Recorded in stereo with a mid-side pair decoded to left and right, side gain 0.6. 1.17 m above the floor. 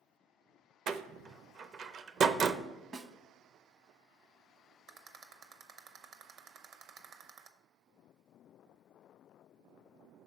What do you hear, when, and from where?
0.9 s a door slam: 45° right, 0.5 m
2.9 s a snare drum: 45° right, 0.8 m
4.9 s a rattle: 60° right, 0.8 m